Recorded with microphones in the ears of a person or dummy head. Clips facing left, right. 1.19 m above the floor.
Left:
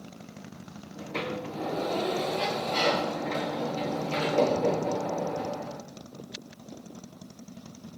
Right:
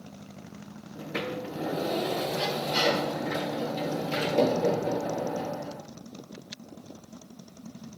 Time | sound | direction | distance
0.9 | a sliding door | 10° right (ahead or behind) | 0.8 m